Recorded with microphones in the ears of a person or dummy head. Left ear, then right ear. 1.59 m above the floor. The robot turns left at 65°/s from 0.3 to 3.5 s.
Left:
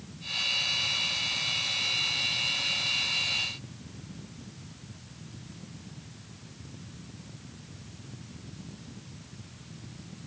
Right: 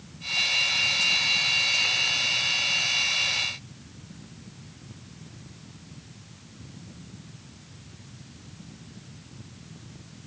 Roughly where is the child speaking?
I don't hear a child speaking.